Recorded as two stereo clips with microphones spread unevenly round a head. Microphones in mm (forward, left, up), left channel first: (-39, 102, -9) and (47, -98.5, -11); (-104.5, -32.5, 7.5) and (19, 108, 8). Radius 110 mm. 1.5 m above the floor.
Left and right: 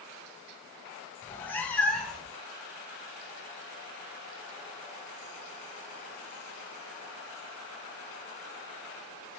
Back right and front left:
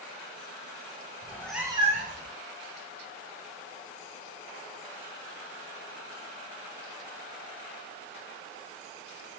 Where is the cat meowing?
175° right, 0.8 m; by 2.3 s 25° left, 1.1 m.